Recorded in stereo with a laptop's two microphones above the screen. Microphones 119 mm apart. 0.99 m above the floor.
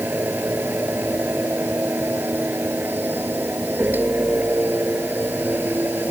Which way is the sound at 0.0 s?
15° right (ahead or behind).